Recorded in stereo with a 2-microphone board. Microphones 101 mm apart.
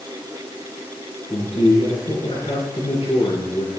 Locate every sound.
1.3 s a man speaking: 80° left, 7 m